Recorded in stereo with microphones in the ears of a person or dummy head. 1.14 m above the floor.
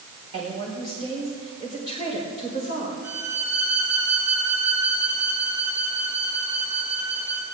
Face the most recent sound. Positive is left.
turn(degrees=-20)  # may be behind; listen again after turning